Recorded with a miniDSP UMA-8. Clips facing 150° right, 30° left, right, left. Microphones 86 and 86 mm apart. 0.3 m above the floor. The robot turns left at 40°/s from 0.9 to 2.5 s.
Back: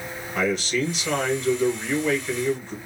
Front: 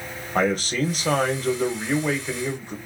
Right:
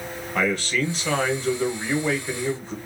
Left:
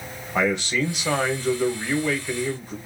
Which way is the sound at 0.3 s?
25° left.